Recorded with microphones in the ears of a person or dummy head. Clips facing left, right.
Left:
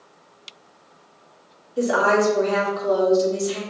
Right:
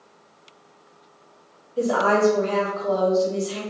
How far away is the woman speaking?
About 1.7 m.